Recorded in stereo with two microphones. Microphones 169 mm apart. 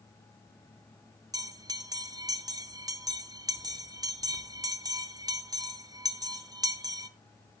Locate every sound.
1.3 s a bell: 25° right (ahead or behind), 0.9 m